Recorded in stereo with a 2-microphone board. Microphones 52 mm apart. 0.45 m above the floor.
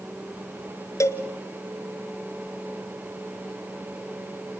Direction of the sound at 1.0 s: 90° left.